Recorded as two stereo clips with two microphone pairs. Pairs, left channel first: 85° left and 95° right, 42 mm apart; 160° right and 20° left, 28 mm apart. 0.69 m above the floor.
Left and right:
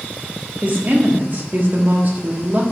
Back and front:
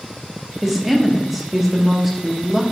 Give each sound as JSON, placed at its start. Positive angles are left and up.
{"t": 0.6, "sound": "a woman speaking", "azimuth_deg": -65, "distance_m": 0.9}